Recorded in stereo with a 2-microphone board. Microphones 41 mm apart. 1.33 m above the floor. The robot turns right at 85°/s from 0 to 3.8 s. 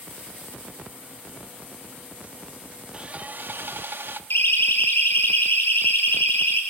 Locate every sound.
2.9 s sawing: 155° right, 1.2 m; by 4.2 s 80° right, 1.2 m
4.3 s a siren: 75° left (ahead or behind), 5 m; by 6.6 s 70° left (ahead or behind), 7.5 m